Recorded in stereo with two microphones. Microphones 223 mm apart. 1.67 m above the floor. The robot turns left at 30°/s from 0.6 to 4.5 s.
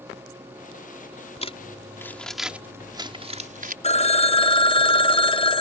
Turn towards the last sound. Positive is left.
turn(degrees=25)  # may be behind; listen again after turning